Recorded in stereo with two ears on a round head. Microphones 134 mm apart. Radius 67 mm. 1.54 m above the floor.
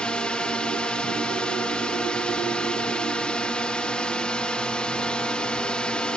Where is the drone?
5° left (ahead or behind).